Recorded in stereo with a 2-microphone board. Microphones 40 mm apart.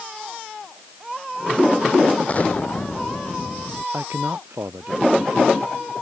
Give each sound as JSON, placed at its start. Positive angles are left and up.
{"t": 2.3, "sound": "an explosion", "side_deg": 40}
{"t": 3.9, "sound": "a man speaking", "side_deg": -80}